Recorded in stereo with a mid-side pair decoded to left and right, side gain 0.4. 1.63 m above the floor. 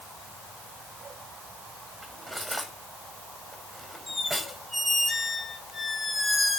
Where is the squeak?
5° left, 7 m.